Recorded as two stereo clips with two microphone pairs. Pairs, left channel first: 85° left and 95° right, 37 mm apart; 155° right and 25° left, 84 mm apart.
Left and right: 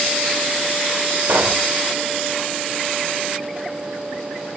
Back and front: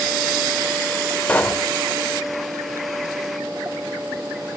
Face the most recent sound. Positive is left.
turn(degrees=-80)